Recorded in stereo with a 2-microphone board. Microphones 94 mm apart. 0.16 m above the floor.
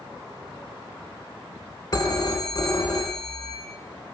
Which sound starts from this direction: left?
A phone ringing, at 1.9 s.